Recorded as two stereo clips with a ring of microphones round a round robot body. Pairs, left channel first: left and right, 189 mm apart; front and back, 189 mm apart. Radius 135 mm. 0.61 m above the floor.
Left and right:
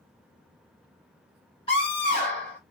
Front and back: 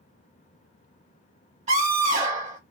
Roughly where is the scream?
Behind left.